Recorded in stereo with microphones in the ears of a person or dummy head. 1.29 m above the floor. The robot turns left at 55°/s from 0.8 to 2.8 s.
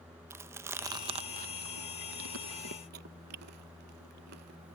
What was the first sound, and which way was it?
Chewing, 15° right (ahead or behind).